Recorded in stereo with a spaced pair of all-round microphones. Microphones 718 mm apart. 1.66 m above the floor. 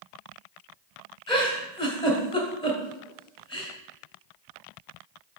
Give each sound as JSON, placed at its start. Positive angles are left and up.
{"t": 1.3, "sound": "a giggle", "side_deg": 5, "distance_m": 2.0}